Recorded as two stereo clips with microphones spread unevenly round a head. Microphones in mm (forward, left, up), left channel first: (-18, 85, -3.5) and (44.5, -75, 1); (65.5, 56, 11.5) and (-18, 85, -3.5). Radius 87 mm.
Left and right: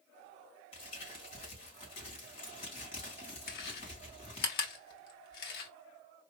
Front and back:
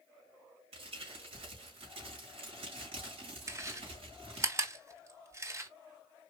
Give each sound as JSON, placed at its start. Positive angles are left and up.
{"t": 0.7, "sound": "crumpling", "azimuth_deg": 170, "distance_m": 3.5}
{"t": 3.5, "sound": "chewing", "azimuth_deg": 105, "distance_m": 1.4}